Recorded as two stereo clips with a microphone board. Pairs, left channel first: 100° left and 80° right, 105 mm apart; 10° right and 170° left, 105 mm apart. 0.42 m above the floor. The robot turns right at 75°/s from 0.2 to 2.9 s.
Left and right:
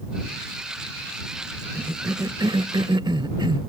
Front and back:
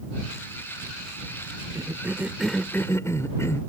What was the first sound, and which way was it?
A cough, 150° right.